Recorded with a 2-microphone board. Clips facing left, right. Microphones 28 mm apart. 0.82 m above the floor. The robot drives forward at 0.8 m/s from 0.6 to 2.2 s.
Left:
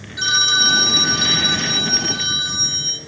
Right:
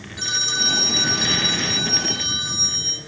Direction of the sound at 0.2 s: 30° left (ahead or behind).